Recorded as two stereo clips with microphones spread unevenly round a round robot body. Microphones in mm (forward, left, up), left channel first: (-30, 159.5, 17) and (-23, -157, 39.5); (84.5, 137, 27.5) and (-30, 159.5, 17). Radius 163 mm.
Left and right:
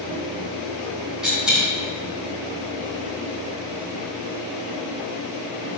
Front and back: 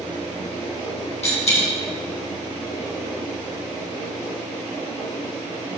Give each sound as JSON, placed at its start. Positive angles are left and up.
{"t": 1.2, "sound": "a dropped coin", "azimuth_deg": -5, "distance_m": 2.0}